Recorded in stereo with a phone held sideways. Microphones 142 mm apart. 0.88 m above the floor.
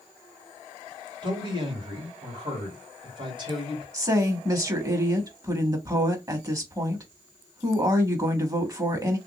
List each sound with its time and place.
1.2 s a man speaking: 35° right (ahead or behind), 2.5 m
3.9 s a woman speaking: 25° right (ahead or behind), 1.3 m